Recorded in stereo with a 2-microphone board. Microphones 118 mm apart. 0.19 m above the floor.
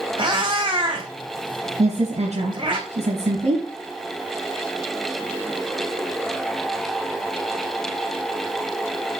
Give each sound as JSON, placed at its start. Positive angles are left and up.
{"t": 0.2, "sound": "a cat meowing", "side_deg": -45, "distance_m": 4.5}
{"t": 1.8, "sound": "a woman speaking", "side_deg": -70, "distance_m": 3.5}